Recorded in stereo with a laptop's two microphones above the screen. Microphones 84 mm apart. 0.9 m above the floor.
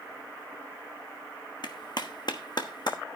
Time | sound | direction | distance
1.6 | a clap | 60° left (ahead or behind) | 1.1 m